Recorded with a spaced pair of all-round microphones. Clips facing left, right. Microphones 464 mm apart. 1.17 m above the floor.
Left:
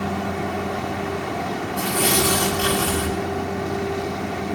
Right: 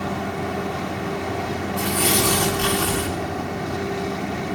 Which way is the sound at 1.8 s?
10° right (ahead or behind).